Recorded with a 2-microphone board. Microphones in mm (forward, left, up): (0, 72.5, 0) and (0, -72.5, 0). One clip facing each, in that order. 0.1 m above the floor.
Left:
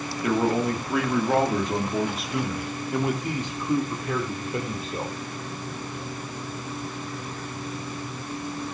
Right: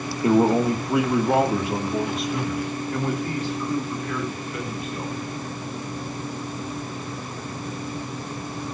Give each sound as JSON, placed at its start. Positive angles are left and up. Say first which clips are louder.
{"t": 0.2, "sound": "a man speaking", "louder": "right 5 dB", "side_deg": -30, "distance_m": 3.0}